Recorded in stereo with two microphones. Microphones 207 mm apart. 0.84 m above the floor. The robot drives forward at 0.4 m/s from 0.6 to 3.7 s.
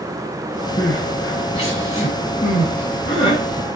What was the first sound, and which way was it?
Crying, 30° left (ahead or behind).